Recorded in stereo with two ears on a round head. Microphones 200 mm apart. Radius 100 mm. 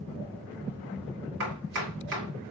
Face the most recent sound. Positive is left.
turn(degrees=-70)  # may be behind; listen again after turning